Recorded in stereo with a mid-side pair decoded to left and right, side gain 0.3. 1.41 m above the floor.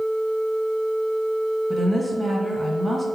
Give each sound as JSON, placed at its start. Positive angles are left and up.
{"t": 1.7, "sound": "a woman speaking", "azimuth_deg": -30, "distance_m": 1.5}